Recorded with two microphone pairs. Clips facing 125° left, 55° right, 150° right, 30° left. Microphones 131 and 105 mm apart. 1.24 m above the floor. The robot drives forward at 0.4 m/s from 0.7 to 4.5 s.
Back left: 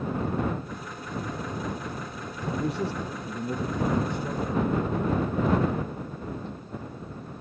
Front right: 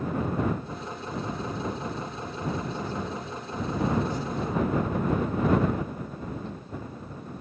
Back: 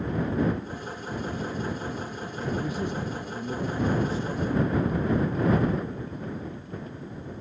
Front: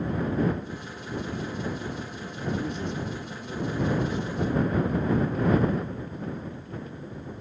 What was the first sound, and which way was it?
A man speaking, 120° left.